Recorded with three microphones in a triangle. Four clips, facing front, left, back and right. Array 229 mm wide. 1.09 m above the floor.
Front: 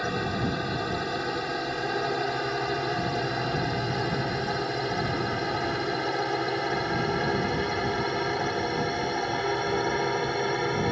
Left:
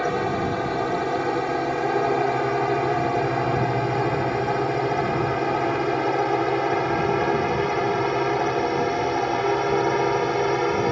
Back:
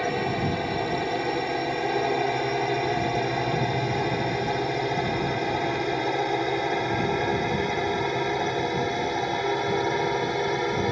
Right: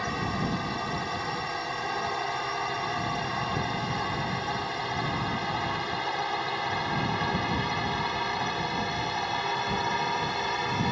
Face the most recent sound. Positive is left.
turn(degrees=95)